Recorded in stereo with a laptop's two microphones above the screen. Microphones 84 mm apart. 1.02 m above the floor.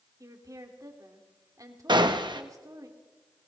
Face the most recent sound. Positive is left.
turn(degrees=-60)  # may be behind; listen again after turning